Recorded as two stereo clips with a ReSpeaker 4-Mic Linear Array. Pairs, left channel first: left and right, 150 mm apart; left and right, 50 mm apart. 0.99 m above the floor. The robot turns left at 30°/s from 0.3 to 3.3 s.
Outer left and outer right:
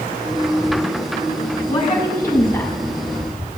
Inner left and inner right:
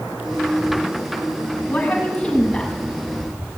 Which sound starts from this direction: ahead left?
A woman speaking, at 1.7 s.